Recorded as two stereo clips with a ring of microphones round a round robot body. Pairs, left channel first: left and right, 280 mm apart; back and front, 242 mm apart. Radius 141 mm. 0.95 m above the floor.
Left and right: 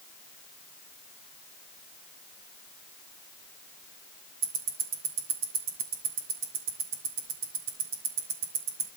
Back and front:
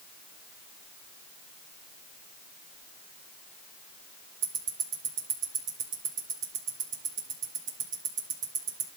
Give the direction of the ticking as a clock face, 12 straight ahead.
2 o'clock.